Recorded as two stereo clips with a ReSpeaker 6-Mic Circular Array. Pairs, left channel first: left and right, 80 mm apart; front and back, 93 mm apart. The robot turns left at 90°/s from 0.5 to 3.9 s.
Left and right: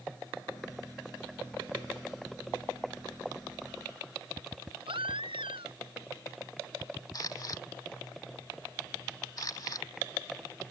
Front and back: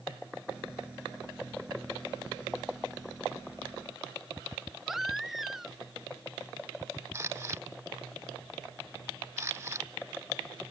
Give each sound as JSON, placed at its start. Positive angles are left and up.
{"t": 4.9, "sound": "a baby crying", "azimuth_deg": -90}
{"t": 7.1, "sound": "a camera shutter", "azimuth_deg": 125}